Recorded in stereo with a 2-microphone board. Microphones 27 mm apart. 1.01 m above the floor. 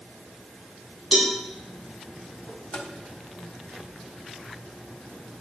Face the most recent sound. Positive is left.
turn(degrees=60)  # may be behind; listen again after turning